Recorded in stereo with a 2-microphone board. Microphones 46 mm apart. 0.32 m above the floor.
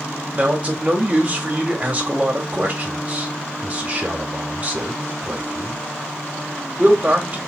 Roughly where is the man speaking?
Right.